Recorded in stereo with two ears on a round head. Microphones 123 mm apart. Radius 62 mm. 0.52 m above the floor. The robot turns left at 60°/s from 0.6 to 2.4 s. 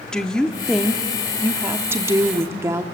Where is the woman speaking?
5° left (ahead or behind), 1.1 m; by 2.8 s 20° right (ahead or behind), 1.1 m.